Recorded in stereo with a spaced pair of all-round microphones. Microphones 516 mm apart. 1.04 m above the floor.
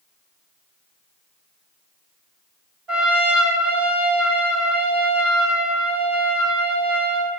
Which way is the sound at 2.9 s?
85° right.